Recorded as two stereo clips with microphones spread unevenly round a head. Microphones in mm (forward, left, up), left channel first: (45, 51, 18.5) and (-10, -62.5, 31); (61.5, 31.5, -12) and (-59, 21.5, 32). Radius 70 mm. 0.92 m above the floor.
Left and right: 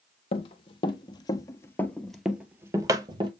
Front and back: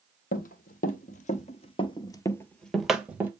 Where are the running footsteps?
25° left, 1.4 m; by 3.3 s 140° right, 1.1 m.